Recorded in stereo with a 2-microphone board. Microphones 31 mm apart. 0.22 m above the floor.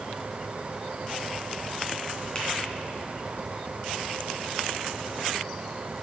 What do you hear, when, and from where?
2.4 s a finger snap: 35° left (ahead or behind), 2 m